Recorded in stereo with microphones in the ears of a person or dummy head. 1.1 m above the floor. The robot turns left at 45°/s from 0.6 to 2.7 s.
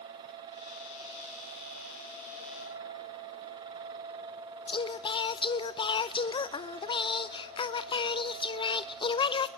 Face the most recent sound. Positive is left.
turn(degrees=25)  # may be behind; listen again after turning